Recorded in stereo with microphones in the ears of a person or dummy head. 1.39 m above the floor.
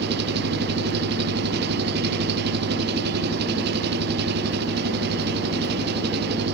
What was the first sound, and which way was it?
An engine running, 60° right (ahead or behind).